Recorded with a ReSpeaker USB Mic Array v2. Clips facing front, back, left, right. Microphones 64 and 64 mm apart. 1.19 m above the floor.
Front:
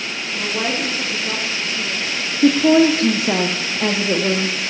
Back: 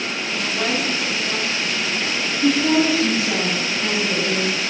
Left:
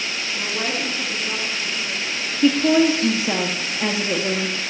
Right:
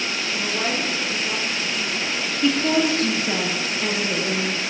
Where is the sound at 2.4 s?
20° left, 0.5 m.